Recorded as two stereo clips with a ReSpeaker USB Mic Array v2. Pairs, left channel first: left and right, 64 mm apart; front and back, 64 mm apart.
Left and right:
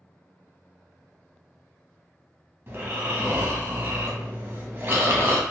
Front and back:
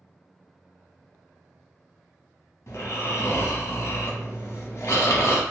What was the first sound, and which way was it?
Snoring, 35° right.